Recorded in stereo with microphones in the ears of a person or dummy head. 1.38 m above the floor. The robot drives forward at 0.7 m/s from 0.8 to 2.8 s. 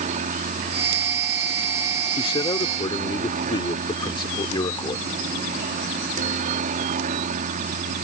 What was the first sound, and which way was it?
A helicopter, 45° right (ahead or behind).